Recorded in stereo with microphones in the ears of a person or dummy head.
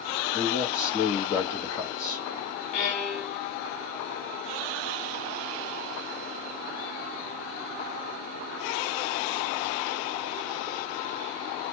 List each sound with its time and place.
0.3 s a man speaking: 15° left (ahead or behind), 1.1 m
2.7 s a violin: 45° left (ahead or behind), 1.7 m